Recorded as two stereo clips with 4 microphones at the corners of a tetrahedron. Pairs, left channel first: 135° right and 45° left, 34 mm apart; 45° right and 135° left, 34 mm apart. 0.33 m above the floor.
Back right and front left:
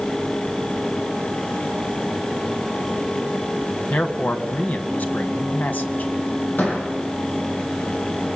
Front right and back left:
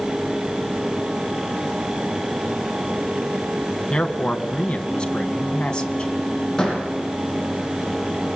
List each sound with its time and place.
3.9 s a man speaking: 110° right, 2.5 m
6.6 s a door slam: 120° right, 9.5 m